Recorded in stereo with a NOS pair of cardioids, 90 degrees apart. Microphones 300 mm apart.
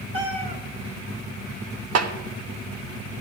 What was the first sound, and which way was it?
A cat meowing, 45° right.